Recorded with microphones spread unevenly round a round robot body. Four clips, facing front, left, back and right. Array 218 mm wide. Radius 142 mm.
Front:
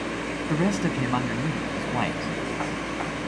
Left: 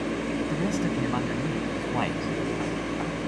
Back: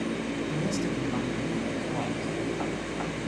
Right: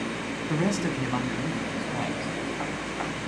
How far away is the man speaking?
About 3.5 m.